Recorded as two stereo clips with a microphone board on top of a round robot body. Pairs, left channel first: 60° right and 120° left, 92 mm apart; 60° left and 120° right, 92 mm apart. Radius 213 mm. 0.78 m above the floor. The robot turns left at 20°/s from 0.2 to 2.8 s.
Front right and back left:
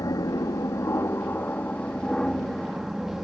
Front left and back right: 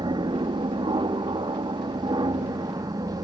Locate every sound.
0.0 s an aircraft: 100° right; by 3.3 s 155° right